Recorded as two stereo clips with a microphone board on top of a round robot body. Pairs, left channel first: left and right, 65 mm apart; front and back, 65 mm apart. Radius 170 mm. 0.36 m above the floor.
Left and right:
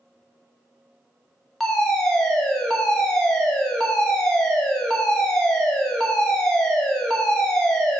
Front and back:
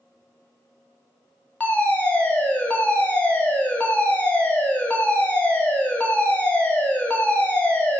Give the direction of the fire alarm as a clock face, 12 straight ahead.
11 o'clock.